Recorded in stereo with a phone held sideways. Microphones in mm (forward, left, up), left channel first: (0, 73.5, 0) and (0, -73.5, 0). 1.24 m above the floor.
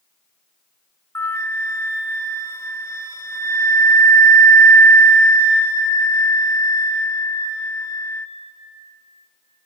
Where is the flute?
15° left (ahead or behind), 0.8 m.